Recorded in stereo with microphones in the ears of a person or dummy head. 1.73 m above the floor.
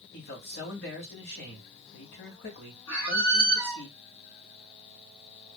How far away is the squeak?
About 0.6 m.